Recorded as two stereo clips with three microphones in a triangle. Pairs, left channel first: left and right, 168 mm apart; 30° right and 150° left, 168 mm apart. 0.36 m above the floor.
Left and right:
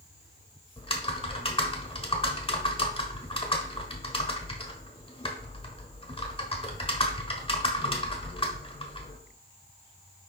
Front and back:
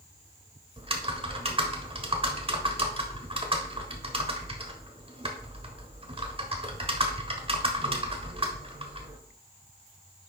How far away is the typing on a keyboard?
About 1.1 m.